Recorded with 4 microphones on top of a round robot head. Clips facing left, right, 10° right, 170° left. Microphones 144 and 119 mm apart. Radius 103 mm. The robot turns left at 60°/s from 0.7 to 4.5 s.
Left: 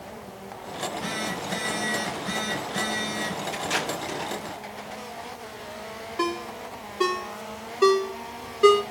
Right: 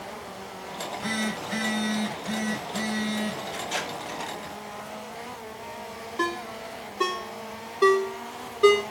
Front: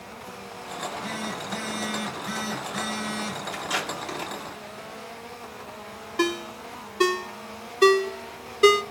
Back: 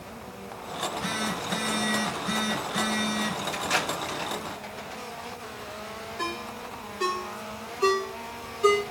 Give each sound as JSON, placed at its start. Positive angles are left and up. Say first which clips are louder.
{"t": 0.8, "sound": "a phone buzzing", "louder": "even, back 2 dB", "azimuth_deg": -160, "distance_m": 3.0}
{"t": 3.5, "sound": "tape being pulled", "louder": "left 3 dB, back 1 dB", "azimuth_deg": 80, "distance_m": 2.5}
{"t": 6.2, "sound": "a ringtone", "louder": "left 2 dB, front 9 dB", "azimuth_deg": 5, "distance_m": 0.8}